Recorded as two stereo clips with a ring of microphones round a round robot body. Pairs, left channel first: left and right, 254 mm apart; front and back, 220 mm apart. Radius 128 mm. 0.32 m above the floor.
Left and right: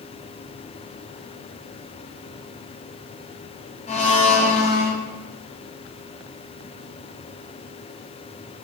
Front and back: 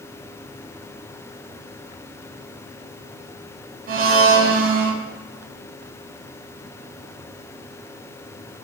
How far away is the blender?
About 0.9 m.